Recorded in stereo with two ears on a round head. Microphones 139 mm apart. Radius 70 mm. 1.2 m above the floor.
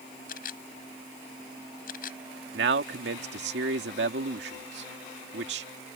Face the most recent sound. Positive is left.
turn(degrees=-80)